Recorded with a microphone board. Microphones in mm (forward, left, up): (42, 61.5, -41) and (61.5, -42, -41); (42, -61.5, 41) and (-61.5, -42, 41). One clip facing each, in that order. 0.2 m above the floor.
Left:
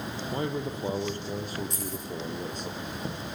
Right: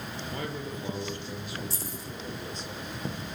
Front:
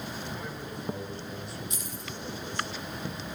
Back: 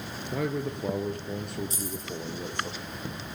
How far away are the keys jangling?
About 5.5 m.